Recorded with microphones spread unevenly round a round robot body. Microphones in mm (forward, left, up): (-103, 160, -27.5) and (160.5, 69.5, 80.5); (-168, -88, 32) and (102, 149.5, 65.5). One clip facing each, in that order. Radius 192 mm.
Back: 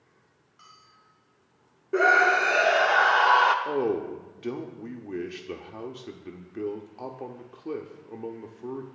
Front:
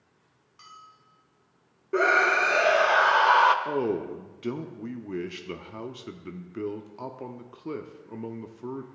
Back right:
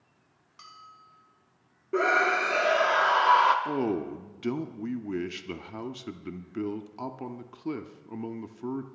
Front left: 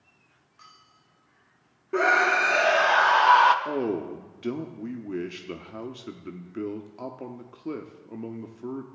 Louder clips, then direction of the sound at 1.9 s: Back 1 dB, front left 1 dB; 125° left.